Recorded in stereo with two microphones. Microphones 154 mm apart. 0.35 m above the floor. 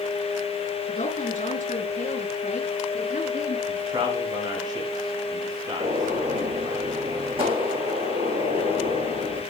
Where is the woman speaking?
60° left (ahead or behind), 4 m.